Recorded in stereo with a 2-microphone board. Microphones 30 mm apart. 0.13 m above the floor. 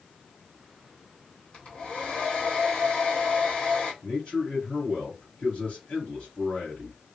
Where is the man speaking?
35° left (ahead or behind), 2 m.